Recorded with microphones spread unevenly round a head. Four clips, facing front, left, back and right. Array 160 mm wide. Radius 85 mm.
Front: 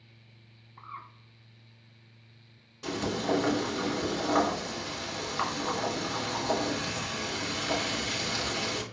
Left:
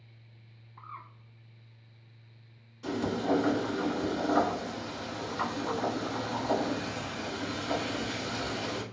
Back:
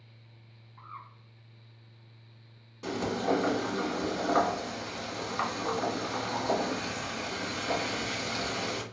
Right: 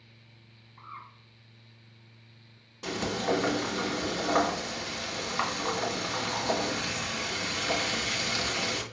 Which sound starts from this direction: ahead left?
A bird, at 0.8 s.